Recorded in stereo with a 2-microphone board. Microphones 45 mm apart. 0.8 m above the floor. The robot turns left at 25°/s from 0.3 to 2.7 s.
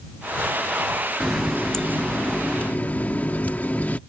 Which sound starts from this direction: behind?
A running tap, at 1.2 s.